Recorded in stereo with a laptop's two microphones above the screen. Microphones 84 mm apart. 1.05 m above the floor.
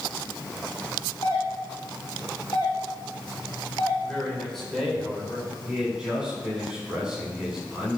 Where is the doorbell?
45° left (ahead or behind), 7 m.